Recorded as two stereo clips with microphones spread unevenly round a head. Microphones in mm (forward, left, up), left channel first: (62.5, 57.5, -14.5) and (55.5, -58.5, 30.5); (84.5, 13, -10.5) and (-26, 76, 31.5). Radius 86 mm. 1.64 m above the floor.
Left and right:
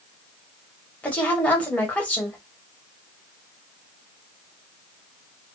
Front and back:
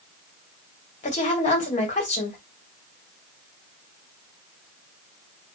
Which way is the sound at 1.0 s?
5° left.